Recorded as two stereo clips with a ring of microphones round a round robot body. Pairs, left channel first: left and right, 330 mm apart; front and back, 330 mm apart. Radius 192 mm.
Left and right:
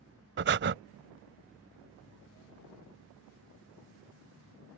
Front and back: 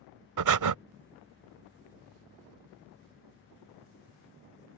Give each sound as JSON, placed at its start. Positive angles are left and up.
{"t": 0.4, "sound": "breathing", "azimuth_deg": -150}